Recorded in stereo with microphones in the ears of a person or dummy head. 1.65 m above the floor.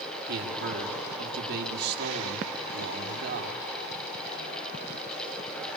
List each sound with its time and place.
0.3 s a man speaking: 60° right (ahead or behind), 6 m